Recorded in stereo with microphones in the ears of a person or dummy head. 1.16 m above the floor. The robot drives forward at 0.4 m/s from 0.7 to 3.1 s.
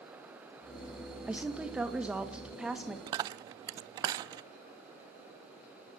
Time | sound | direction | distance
1.3 | a woman speaking | 5° right (ahead or behind) | 1.6 m
3.1 | a dropped coin | 25° right (ahead or behind) | 0.5 m